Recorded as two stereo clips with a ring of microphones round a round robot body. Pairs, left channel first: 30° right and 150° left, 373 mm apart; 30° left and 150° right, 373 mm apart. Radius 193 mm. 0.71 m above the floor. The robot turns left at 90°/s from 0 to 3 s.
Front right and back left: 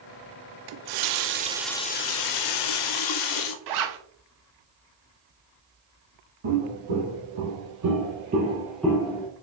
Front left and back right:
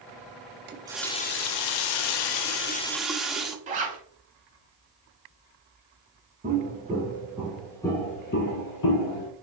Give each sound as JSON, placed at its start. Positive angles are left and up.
{"t": 0.7, "sound": "a running tap", "azimuth_deg": 150, "distance_m": 0.6}
{"t": 3.7, "sound": "a zipper", "azimuth_deg": 145, "distance_m": 0.7}
{"t": 6.4, "sound": "footsteps", "azimuth_deg": 140, "distance_m": 2.0}